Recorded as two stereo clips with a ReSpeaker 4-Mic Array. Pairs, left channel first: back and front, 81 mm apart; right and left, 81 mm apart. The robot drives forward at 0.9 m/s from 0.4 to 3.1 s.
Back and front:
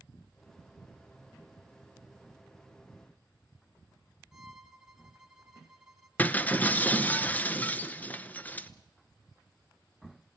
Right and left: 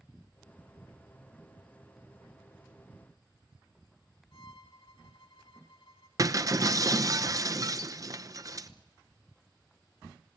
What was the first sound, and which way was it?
A violin, 80° right.